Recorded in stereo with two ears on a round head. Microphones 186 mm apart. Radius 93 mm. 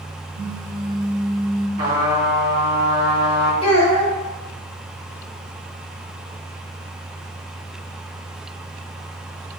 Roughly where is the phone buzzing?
Right.